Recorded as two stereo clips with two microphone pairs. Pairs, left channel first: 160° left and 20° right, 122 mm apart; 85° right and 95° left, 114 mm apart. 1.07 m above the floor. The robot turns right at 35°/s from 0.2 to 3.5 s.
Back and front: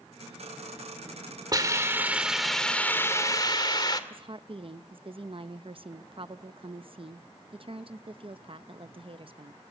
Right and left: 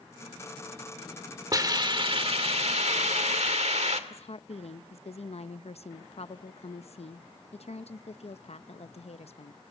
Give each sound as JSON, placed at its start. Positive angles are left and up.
{"t": 1.5, "sound": "a hiss", "azimuth_deg": 40, "distance_m": 2.0}
{"t": 4.1, "sound": "a woman speaking", "azimuth_deg": -60, "distance_m": 0.7}